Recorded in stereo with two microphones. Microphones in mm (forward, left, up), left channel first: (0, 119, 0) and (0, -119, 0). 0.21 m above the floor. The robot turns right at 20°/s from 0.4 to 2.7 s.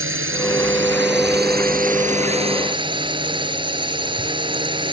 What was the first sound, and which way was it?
A drone, 70° right.